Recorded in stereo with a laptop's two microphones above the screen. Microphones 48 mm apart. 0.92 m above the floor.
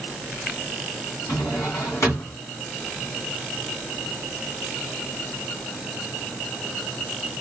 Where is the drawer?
60° left (ahead or behind), 1.5 m.